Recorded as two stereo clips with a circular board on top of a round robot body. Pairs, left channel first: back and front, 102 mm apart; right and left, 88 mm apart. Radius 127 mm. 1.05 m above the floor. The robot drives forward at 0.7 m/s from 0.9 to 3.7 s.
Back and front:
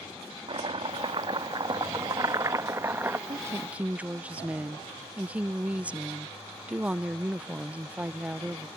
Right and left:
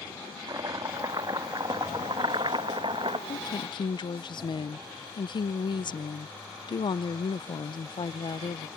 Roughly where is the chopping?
Ahead left.